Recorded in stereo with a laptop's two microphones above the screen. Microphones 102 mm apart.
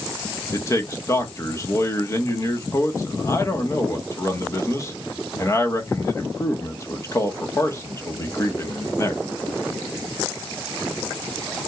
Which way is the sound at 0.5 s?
30° left (ahead or behind).